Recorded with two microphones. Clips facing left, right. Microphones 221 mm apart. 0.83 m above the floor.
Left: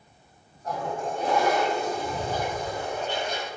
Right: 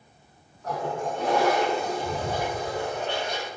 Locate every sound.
0.6 s a toilet flushing: 80° right, 9.5 m